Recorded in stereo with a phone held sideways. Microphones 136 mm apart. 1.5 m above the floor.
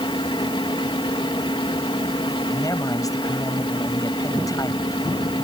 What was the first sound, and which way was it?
A fan, 40° left (ahead or behind).